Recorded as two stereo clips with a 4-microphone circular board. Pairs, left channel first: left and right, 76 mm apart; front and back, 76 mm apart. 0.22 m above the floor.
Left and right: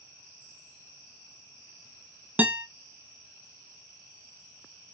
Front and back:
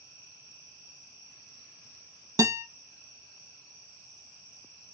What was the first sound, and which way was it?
A guitar, 155° right.